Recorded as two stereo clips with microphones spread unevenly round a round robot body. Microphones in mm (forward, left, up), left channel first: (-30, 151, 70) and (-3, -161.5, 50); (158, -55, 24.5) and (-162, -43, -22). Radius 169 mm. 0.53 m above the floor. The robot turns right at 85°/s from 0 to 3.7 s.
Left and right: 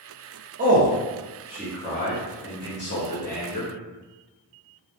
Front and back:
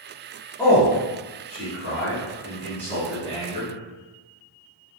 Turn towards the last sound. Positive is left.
turn(degrees=170)